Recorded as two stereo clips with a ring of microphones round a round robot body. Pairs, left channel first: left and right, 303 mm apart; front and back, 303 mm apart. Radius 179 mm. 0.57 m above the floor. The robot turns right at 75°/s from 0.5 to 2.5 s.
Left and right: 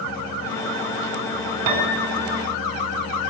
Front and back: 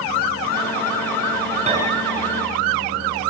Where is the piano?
110° right, 4.5 m; by 2.4 s 55° right, 4.5 m.